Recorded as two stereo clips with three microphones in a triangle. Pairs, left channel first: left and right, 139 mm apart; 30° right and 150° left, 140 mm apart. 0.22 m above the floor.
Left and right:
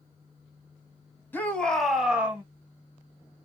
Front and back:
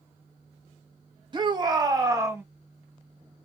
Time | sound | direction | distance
1.3 | a shout | 155° left | 1.4 m